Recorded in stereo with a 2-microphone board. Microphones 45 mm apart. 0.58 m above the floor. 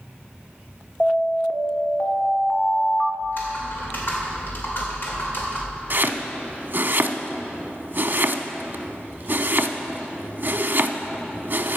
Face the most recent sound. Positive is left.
turn(degrees=-50)  # may be behind; listen again after turning